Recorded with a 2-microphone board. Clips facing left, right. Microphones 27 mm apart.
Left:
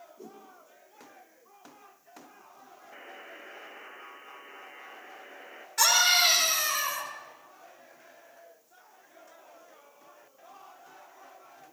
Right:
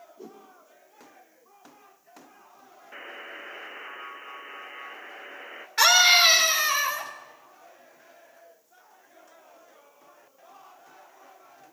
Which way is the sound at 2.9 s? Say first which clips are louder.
Right 6 dB; 35° right (ahead or behind).